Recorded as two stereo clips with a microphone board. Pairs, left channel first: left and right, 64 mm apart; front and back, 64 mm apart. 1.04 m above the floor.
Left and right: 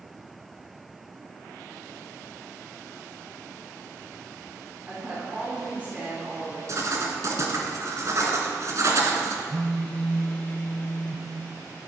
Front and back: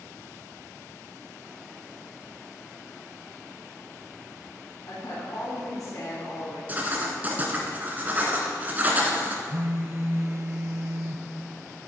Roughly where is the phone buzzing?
Behind left.